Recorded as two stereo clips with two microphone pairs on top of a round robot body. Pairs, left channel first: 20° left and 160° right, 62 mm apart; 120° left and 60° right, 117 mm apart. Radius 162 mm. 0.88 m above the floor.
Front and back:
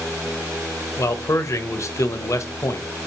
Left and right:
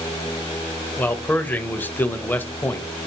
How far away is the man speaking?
About 0.7 m.